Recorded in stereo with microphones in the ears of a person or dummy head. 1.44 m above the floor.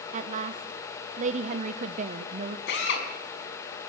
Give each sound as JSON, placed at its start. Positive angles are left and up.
{"t": 0.1, "sound": "a woman speaking", "side_deg": -45, "distance_m": 1.0}
{"t": 2.7, "sound": "a drill", "side_deg": 80, "distance_m": 6.0}